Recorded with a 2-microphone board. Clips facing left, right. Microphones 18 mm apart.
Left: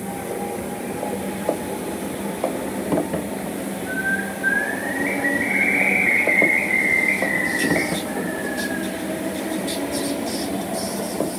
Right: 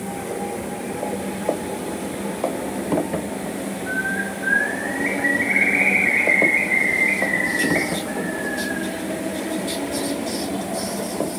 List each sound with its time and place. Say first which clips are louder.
3.9 s a bird: left 1 dB; 65° right (ahead or behind), 6 m